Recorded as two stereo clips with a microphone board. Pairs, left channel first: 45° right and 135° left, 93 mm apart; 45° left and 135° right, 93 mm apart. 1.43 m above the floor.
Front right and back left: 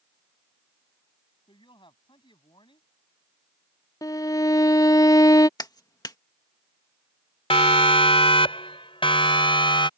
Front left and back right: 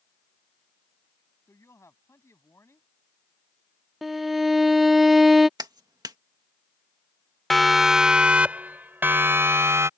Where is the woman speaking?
15° right.